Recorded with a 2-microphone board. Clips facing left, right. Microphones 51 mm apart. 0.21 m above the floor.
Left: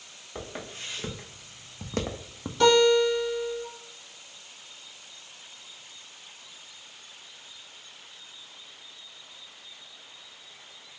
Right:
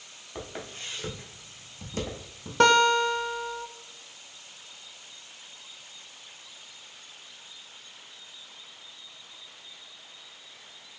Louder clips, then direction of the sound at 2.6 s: Left 1 dB; 65° right (ahead or behind).